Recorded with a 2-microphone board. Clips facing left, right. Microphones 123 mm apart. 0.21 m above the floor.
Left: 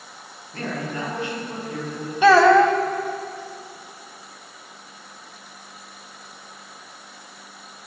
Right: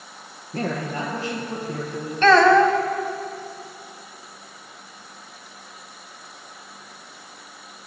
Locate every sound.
0.5 s a man speaking: 35° right (ahead or behind), 3.5 m
2.2 s a child speaking: 10° left (ahead or behind), 0.9 m